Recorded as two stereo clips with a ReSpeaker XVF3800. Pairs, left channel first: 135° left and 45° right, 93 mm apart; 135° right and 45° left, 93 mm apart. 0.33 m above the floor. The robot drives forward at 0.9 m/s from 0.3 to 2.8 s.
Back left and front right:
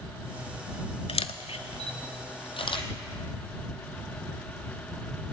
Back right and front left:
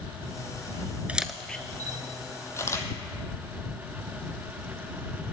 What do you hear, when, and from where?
1.1 s a camera shutter: 120° left, 0.6 m; by 2.9 s 165° left, 1.9 m